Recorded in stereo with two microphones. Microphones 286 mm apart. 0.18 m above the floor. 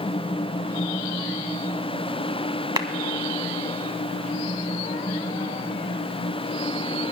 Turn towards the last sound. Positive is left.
turn(degrees=-15)  # may be behind; listen again after turning